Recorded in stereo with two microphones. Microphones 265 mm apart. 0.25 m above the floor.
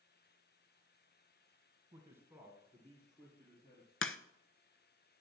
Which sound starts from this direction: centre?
A man speaking, at 1.9 s.